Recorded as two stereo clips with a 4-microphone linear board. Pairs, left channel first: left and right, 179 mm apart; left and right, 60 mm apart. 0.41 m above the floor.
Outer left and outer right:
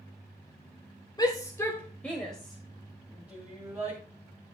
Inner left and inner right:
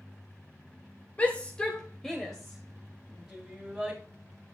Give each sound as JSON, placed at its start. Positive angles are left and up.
{"t": 1.2, "sound": "a shout", "side_deg": 25, "distance_m": 1.4}